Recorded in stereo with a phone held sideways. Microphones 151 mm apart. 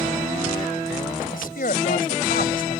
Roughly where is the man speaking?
Left.